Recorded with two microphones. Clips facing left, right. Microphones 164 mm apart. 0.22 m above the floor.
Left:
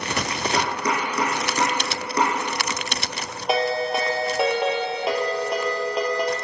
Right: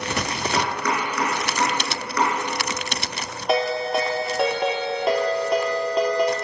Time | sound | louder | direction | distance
0.5 | chopping | even | 30° left (ahead or behind) | 5 m
3.5 | a ringtone | right 1 dB | 5° left (ahead or behind) | 2.5 m